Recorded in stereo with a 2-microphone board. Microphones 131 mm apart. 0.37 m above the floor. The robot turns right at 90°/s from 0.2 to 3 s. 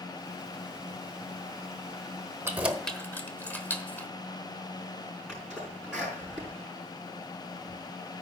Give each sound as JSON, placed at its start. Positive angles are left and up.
{"t": 2.5, "sound": "keys jangling", "side_deg": -20, "distance_m": 1.0}
{"t": 5.3, "sound": "a sneeze", "side_deg": -5, "distance_m": 5.0}